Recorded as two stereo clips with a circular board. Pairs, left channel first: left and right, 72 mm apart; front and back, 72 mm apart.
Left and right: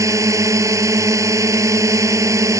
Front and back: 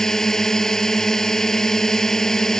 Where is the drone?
80° right.